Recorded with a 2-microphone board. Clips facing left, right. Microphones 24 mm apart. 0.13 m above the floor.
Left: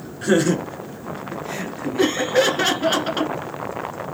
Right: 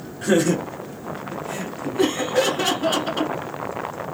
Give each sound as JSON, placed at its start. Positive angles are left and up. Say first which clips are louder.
{"t": 0.2, "sound": "laughter", "louder": "left 1 dB", "side_deg": 10, "distance_m": 1.4}
{"t": 2.0, "sound": "laughter", "louder": "left 2 dB", "side_deg": 40, "distance_m": 1.5}